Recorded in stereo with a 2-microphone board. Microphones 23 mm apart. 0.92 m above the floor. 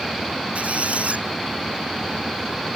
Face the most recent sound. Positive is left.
turn(degrees=-85)